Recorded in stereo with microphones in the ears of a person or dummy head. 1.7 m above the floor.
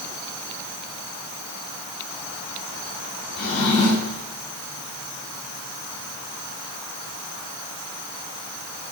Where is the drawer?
40° left (ahead or behind), 3.5 m.